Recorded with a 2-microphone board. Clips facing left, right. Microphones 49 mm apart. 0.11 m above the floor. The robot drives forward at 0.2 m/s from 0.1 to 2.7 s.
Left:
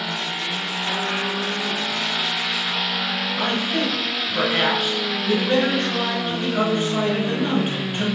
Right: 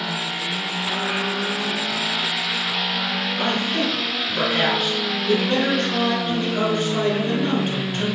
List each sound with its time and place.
3.4 s a man speaking: 20° left (ahead or behind), 1.2 m